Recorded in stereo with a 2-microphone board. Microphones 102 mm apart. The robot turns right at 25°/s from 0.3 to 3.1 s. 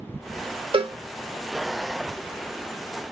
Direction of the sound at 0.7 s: 60° right (ahead or behind).